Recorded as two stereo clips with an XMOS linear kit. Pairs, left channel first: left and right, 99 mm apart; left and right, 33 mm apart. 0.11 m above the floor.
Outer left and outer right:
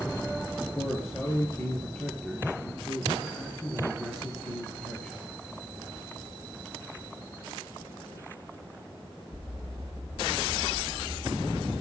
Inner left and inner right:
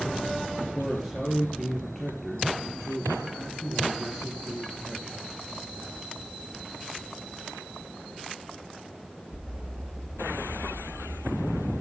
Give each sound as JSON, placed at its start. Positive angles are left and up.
{"t": 0.8, "sound": "a man speaking", "side_deg": 15, "distance_m": 2.5}